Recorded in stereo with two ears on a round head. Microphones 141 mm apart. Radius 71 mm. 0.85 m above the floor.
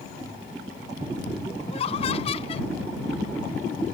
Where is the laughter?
40° left (ahead or behind).